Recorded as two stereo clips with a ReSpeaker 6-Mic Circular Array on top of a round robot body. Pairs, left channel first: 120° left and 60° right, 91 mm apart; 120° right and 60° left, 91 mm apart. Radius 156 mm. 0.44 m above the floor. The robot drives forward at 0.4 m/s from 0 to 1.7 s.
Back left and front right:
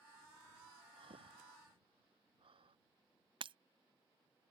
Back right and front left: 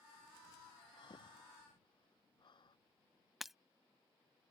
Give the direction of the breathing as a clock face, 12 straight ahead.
3 o'clock.